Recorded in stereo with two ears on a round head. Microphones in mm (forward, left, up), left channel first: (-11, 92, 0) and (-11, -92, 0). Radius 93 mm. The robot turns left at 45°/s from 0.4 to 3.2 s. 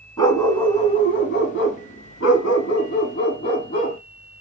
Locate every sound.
0.2 s a dog barking: 160° left, 1.0 m; by 4.0 s 35° left, 1.0 m